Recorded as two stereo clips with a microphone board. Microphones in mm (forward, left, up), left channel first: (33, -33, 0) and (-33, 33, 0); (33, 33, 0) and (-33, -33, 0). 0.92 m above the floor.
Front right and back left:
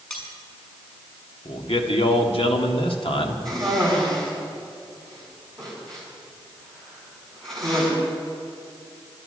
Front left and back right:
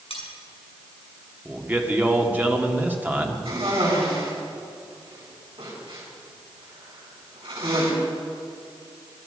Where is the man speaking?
65° right, 1.7 m.